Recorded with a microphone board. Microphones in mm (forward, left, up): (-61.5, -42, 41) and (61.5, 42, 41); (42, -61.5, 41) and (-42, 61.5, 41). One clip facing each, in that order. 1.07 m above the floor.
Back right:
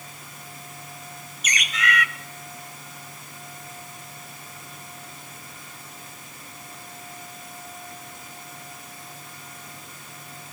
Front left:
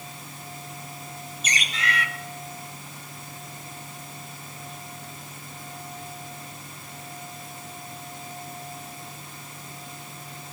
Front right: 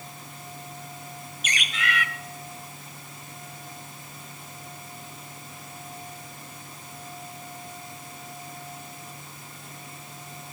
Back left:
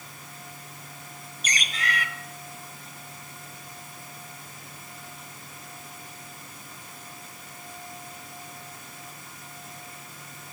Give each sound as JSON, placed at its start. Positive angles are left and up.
{"t": 1.4, "sound": "a bird", "azimuth_deg": 85, "distance_m": 1.1}